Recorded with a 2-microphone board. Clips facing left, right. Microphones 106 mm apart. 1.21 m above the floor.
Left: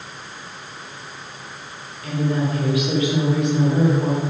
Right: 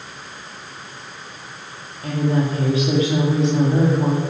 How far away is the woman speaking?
About 2.5 m.